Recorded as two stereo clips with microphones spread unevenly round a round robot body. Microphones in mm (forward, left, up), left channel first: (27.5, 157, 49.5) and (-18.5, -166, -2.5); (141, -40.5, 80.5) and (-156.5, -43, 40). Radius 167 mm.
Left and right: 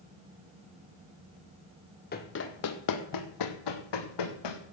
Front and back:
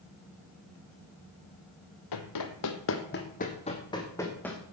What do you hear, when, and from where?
2.1 s running footsteps: 20° left, 1.5 m; by 4.6 s 85° left, 2.5 m